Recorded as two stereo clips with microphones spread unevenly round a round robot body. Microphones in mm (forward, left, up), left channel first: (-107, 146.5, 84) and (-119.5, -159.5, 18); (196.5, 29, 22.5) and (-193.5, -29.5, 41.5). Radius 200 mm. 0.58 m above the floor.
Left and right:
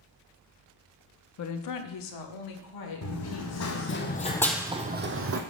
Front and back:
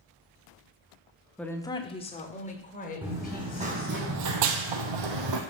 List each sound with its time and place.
1.4 s a woman speaking: 90° left, 0.8 m; by 4.0 s 75° left, 3.5 m
3.0 s running footsteps: 105° left, 2.5 m; by 5.4 s 140° right, 1.7 m